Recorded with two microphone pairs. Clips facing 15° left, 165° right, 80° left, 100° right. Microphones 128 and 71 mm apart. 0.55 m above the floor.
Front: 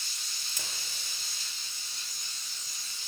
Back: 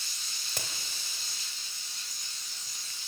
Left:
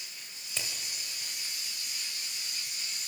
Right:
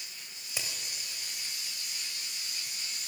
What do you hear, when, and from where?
0.5 s a crack: straight behind, 1.9 m